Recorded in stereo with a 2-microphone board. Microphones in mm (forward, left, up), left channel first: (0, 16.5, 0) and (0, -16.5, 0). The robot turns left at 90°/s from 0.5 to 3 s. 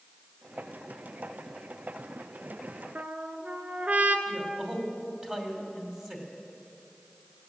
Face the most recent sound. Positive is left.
turn(degrees=-25)  # may be behind; listen again after turning